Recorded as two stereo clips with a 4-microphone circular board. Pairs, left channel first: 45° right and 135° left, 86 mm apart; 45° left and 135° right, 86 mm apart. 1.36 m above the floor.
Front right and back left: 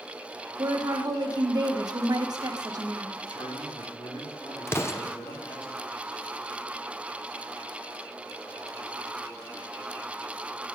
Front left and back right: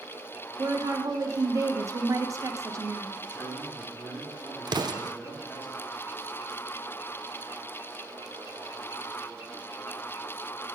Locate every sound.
0.6 s a woman speaking: 175° left, 1.1 m
3.3 s a man speaking: 20° right, 3.5 m
4.7 s an explosion: 105° right, 0.6 m